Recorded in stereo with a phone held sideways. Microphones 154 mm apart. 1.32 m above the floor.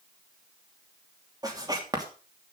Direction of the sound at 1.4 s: 25° right (ahead or behind).